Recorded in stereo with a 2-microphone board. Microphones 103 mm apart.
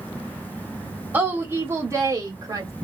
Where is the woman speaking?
20° right (ahead or behind), 1.2 m; by 2.7 s 35° right (ahead or behind), 1.4 m.